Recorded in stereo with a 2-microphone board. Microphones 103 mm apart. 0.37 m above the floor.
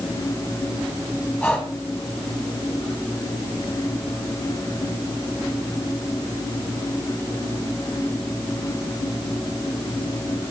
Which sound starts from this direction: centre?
Breathing, at 1.4 s.